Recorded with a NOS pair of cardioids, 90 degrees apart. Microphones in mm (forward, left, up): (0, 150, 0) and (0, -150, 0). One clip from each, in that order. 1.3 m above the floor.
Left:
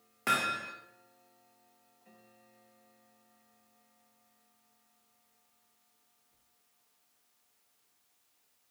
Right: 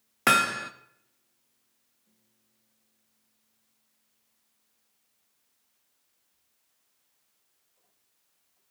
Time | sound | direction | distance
0.3 | hammering | 65° right | 0.8 m